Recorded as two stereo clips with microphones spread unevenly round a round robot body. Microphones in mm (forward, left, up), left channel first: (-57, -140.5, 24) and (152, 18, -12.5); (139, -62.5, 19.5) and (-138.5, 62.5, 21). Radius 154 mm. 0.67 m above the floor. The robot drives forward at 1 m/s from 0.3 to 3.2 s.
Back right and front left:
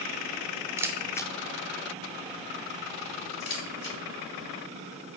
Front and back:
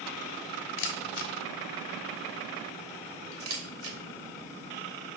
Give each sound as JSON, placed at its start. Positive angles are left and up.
{"t": 0.8, "sound": "a camera shutter", "azimuth_deg": -40, "distance_m": 1.1}